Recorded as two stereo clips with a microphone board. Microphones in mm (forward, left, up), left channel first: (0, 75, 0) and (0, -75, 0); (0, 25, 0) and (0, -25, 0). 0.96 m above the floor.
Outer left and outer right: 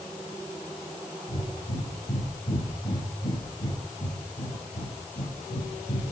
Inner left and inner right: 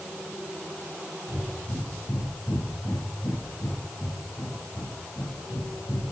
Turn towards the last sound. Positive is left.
turn(degrees=85)